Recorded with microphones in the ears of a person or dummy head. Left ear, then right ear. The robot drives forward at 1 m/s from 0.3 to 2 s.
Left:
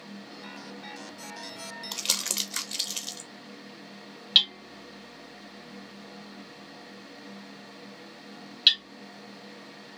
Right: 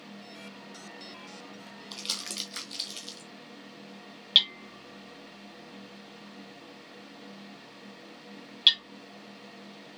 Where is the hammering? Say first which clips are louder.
Left 1 dB; 5° right (ahead or behind), 1.4 m.